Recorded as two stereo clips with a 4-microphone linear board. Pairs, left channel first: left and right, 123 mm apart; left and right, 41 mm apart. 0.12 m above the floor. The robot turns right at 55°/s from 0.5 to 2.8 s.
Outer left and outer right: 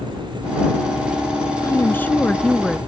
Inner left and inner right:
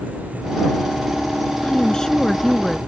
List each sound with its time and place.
1.6 s a woman speaking: 25° left (ahead or behind); by 2.8 s centre (ahead or behind)